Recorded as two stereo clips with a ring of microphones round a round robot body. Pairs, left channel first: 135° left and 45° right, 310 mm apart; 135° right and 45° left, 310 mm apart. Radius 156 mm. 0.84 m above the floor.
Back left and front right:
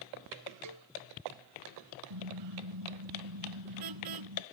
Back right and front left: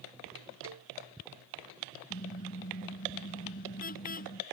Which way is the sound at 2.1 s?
70° right.